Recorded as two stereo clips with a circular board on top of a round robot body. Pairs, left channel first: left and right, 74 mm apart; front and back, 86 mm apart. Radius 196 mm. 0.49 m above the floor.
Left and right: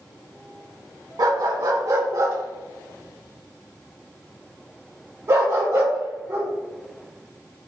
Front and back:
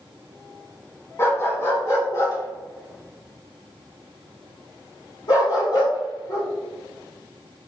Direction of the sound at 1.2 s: 60° right.